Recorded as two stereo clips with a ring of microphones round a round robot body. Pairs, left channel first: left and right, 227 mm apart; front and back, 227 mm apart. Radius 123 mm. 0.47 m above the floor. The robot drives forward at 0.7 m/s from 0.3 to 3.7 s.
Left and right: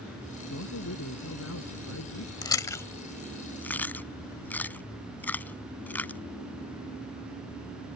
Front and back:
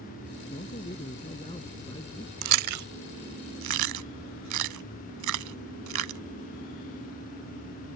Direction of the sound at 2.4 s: 165° left.